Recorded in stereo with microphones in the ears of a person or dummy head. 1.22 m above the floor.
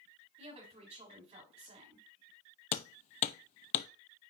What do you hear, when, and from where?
0.4 s a woman speaking: 35° right (ahead or behind), 3.5 m
2.7 s hammering: 35° left (ahead or behind), 0.5 m